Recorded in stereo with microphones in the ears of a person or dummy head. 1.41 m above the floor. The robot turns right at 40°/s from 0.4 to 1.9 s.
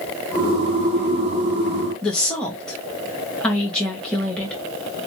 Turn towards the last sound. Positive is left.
turn(degrees=5)  # may be behind; listen again after turning